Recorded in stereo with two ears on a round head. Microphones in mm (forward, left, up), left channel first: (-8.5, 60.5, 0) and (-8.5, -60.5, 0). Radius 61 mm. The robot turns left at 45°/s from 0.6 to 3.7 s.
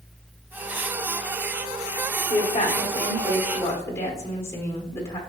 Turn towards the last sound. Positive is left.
turn(degrees=25)